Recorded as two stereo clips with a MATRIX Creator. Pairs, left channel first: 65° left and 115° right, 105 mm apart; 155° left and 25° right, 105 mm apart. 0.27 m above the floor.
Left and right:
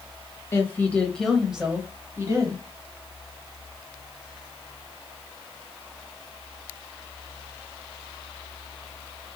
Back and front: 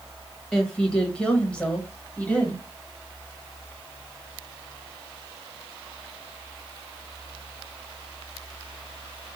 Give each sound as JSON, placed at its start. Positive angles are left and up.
{"t": 0.5, "sound": "a woman speaking", "azimuth_deg": 80, "distance_m": 1.2}